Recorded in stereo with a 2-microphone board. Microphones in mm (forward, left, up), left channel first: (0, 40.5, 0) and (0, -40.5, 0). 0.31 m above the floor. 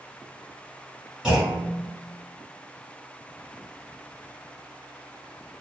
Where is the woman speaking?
I don't hear a woman speaking.